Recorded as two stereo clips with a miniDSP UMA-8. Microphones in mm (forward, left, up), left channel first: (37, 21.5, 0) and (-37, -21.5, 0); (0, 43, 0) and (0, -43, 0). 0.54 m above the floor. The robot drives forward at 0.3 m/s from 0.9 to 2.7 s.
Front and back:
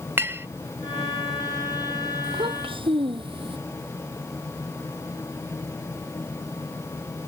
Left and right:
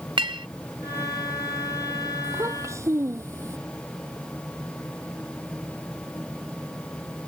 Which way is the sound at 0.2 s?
90° right.